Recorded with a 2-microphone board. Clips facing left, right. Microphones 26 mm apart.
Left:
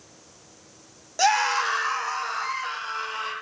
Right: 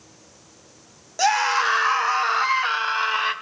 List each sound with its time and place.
1.2 s a scream: centre (ahead or behind), 1.0 m; by 3.3 s 50° right (ahead or behind), 2.5 m